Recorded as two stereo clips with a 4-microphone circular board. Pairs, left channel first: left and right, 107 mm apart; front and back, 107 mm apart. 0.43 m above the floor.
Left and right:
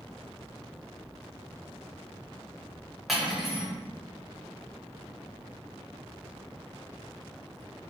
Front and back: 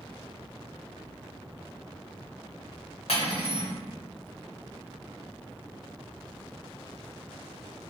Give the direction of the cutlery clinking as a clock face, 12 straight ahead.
12 o'clock.